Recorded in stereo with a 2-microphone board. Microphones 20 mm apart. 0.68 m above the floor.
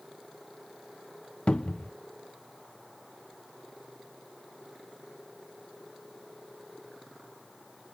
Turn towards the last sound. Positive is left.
turn(degrees=45)  # may be behind; listen again after turning